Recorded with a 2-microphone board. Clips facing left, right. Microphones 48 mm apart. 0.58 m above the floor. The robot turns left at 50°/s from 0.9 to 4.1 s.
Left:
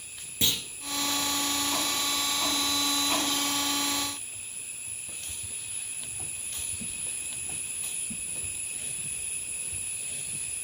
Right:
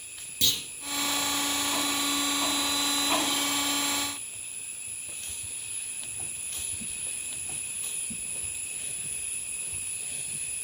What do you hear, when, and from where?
0.4 s a clunk: 25° left (ahead or behind), 2.5 m